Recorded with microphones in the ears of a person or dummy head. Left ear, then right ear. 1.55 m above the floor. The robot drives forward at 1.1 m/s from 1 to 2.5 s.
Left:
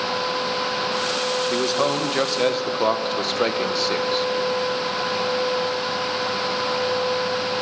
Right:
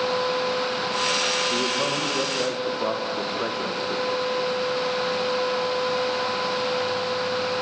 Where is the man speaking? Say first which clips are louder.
Left 2 dB; 45° left (ahead or behind), 2 m; by 4.3 s 75° left (ahead or behind), 1.7 m.